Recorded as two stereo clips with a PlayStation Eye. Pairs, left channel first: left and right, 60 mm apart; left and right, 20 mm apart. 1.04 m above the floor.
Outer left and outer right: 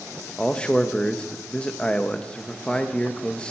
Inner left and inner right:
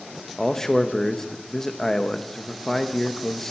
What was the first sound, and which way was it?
A man speaking, 15° left (ahead or behind).